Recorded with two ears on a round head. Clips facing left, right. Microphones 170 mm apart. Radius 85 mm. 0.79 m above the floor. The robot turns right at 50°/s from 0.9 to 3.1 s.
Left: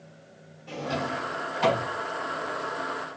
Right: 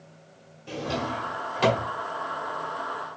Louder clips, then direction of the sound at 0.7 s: Right 1 dB; 35° right (ahead or behind).